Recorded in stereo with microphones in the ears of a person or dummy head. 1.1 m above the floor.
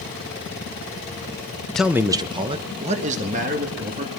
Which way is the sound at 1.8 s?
5° left (ahead or behind).